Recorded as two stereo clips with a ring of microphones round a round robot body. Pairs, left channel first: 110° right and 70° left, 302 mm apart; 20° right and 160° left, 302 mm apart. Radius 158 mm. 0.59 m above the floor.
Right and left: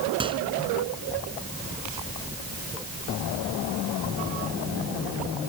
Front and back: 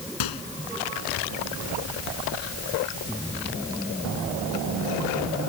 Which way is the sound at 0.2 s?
5° right.